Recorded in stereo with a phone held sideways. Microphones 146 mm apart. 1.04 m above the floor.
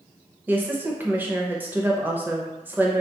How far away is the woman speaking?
About 0.5 m.